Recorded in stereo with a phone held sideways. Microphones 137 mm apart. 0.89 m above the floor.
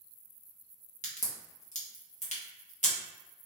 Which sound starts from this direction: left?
A crack, at 1.0 s.